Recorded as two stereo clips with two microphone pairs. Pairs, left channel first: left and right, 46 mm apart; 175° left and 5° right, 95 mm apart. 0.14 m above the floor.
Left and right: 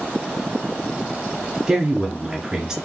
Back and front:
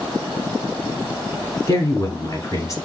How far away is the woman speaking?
About 1.5 m.